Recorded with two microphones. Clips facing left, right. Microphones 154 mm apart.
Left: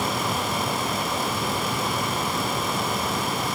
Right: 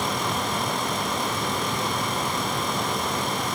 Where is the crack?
I don't hear a crack.